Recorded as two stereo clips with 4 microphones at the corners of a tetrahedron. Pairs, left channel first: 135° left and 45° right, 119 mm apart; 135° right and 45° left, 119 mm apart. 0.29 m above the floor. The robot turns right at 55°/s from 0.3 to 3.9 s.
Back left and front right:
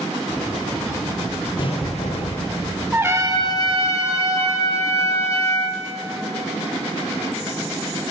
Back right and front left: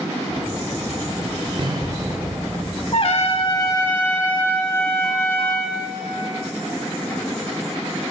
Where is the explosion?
90° left, 1.4 m; by 2.6 s 145° left, 1.4 m.